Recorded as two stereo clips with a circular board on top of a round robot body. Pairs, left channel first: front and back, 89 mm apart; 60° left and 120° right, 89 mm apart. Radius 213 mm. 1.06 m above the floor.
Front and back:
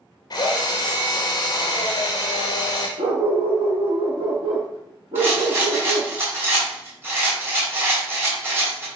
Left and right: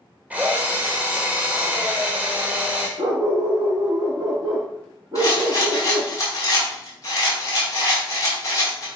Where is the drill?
45° right, 0.8 m.